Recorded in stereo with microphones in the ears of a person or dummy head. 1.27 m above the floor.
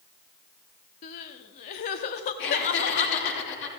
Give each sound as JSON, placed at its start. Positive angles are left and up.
{"t": 1.0, "sound": "crying", "side_deg": 30, "distance_m": 0.8}
{"t": 2.4, "sound": "laughter", "side_deg": 70, "distance_m": 4.5}